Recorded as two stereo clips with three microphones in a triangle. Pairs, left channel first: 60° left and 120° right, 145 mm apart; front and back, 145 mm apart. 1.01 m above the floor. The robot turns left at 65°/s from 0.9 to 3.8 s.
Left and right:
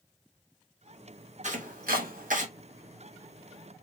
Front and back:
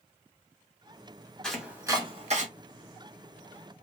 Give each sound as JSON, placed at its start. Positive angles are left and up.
{"t": 1.4, "sound": "chopping", "azimuth_deg": -85, "distance_m": 1.2}